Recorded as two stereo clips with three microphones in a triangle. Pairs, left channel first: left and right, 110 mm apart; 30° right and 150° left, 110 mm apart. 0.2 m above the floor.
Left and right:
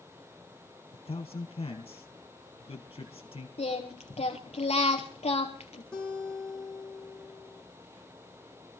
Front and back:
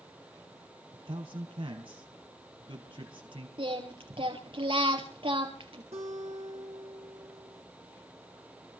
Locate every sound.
0.9 s a man speaking: 115° left, 4.5 m
3.6 s singing: 115° left, 4.5 m
5.9 s a guitar: 170° left, 4 m